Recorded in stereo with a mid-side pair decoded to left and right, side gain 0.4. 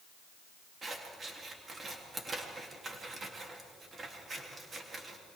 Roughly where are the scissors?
Ahead right.